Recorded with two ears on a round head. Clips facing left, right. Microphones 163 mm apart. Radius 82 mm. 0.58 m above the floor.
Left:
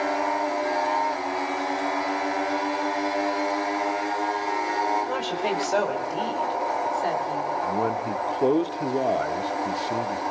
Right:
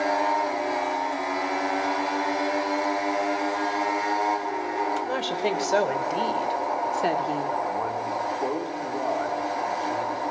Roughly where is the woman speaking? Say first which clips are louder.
Even; centre.